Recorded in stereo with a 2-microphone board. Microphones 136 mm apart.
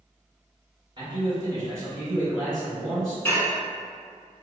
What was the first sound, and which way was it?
A man speaking, 35° right (ahead or behind).